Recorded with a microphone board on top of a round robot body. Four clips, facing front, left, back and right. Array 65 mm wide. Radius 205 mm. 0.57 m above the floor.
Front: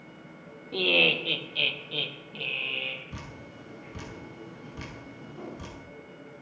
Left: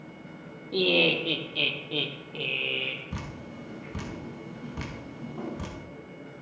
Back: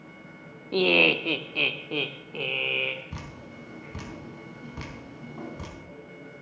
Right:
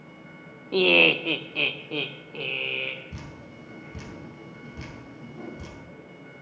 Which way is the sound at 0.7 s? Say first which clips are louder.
Right 4 dB, back 4 dB; 120° right.